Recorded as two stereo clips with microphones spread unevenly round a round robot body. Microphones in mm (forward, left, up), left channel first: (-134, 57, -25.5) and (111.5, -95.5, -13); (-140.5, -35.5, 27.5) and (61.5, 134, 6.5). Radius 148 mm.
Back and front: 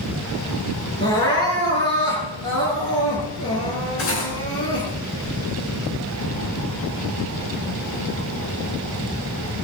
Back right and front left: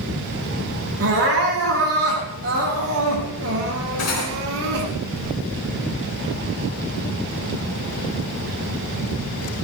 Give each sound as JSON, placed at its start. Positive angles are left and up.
{"t": 1.0, "sound": "crying", "azimuth_deg": 75, "distance_m": 8.5}
{"t": 4.0, "sound": "cutlery clinking", "azimuth_deg": -165, "distance_m": 4.0}